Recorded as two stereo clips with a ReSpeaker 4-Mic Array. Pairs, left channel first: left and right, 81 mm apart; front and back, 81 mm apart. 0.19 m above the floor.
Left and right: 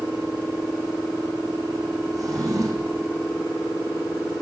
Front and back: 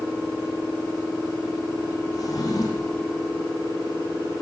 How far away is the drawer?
About 4 m.